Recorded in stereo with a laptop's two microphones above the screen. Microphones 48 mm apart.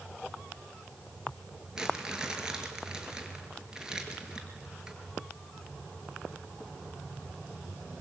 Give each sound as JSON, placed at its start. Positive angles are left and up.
{"t": 1.8, "sound": "crumpling", "side_deg": -15, "distance_m": 5.5}